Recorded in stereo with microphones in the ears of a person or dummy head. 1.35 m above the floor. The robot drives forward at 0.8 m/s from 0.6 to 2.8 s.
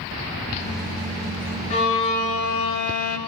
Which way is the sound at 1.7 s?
45° left (ahead or behind).